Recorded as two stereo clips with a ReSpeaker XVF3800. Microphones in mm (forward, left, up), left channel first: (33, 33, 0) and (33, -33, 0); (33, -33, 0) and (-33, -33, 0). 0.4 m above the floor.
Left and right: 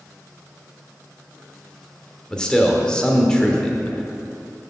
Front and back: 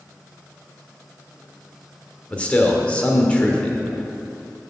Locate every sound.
2.3 s a man speaking: 35° left, 0.9 m